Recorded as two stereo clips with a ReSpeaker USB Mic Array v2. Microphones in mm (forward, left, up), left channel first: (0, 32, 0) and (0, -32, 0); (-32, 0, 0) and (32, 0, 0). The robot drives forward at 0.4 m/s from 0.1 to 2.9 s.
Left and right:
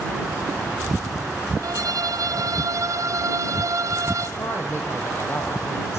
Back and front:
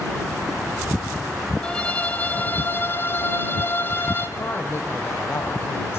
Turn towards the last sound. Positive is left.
turn(degrees=135)